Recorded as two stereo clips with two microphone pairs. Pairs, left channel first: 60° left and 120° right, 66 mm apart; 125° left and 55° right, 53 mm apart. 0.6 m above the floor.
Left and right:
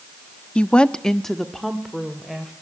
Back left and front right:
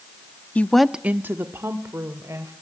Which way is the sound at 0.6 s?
120° left.